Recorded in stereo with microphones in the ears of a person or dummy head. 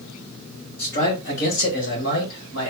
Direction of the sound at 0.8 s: 50° left (ahead or behind).